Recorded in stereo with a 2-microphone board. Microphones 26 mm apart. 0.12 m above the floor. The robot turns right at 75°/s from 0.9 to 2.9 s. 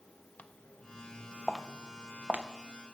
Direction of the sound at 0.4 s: 85° left.